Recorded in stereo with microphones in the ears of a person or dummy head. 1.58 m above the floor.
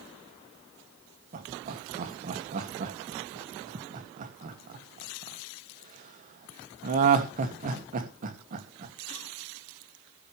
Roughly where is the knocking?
No knocking in this recording.